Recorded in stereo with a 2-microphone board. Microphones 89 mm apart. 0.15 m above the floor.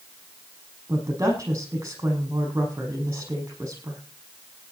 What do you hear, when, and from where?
0.9 s a woman speaking: 30° right (ahead or behind), 6.5 m